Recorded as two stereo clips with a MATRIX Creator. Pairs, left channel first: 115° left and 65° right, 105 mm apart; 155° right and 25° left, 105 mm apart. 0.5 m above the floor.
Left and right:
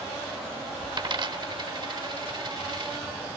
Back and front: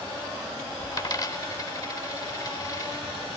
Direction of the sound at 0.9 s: 105° right.